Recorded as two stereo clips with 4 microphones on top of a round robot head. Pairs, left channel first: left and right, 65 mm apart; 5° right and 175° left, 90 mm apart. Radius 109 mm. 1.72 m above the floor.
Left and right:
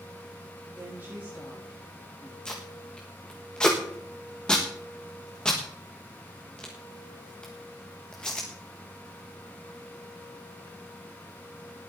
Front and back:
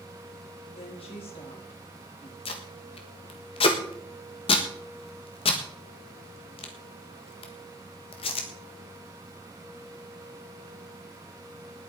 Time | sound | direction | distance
0.7 | a woman speaking | 25° right | 4 m
2.5 | tape being pulled | 10° left | 1.3 m